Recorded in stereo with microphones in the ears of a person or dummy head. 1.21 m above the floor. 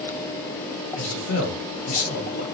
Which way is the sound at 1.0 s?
70° left (ahead or behind).